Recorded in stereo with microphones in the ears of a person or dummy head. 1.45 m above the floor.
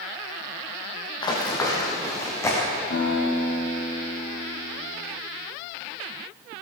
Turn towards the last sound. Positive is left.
turn(degrees=55)  # may be behind; listen again after turning